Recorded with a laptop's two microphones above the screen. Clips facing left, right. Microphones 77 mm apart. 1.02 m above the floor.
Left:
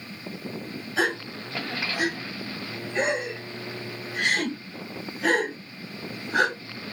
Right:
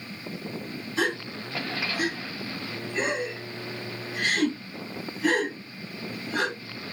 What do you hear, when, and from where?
1.0 s a gasp: 85° left, 3.5 m